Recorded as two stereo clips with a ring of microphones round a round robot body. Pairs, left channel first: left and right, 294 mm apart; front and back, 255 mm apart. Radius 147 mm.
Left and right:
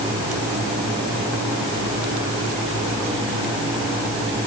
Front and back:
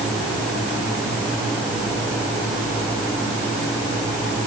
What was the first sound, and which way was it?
Only background noise.